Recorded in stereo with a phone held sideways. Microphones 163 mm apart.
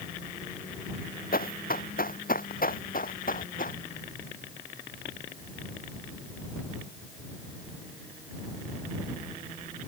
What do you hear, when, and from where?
1.3 s running footsteps: 65° left (ahead or behind); by 3.8 s 60° left (ahead or behind)